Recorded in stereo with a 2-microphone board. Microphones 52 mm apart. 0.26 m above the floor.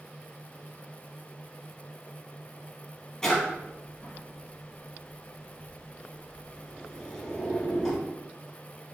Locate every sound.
3.2 s a drawer: 15° left (ahead or behind), 2.5 m